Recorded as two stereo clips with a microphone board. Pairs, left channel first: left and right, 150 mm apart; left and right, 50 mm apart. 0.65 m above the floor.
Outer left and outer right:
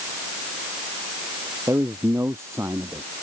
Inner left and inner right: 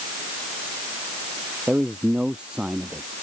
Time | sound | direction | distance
1.7 | a man speaking | 15° right (ahead or behind) | ?